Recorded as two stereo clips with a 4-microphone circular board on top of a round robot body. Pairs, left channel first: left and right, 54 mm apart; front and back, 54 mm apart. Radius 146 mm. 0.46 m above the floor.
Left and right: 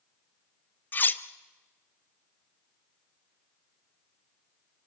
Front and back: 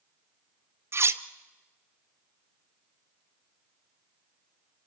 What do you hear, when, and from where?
0.9 s cutlery clinking: 140° left, 0.8 m